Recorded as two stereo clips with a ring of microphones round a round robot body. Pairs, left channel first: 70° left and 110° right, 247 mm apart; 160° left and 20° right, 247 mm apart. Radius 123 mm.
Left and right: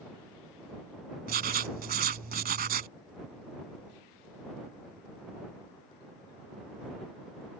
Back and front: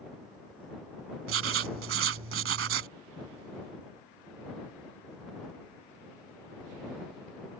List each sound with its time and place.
1.3 s writing: 60° right